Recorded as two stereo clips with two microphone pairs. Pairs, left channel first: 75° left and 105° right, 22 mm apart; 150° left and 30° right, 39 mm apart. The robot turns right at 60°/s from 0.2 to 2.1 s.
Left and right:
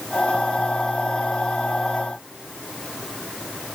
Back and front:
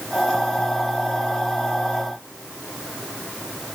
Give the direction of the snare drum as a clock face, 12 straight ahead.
No snare drum in this recording.